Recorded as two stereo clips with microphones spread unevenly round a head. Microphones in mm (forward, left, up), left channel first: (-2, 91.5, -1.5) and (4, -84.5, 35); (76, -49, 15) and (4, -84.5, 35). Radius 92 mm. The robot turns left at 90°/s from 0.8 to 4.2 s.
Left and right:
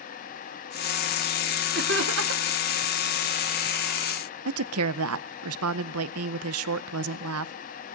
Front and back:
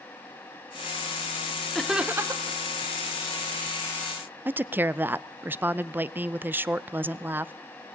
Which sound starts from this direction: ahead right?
Laughter, at 1.8 s.